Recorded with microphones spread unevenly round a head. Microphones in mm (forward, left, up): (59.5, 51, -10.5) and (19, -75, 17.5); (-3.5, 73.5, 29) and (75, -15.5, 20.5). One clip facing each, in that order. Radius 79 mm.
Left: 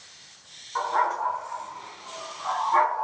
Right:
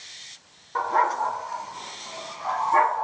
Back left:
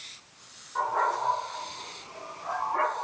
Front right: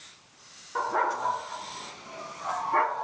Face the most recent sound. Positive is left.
turn(degrees=-50)